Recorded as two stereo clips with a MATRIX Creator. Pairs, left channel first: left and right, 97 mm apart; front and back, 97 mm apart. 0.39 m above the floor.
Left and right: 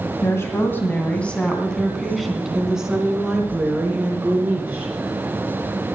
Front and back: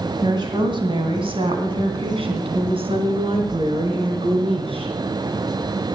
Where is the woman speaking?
145° left, 2 m; by 4.9 s 160° right, 4.5 m.